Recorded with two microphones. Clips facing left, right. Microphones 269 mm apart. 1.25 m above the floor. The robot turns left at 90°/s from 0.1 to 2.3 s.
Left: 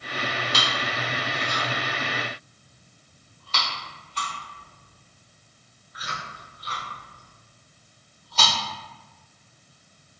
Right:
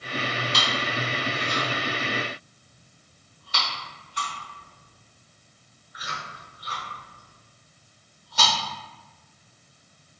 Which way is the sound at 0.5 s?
Centre (ahead or behind).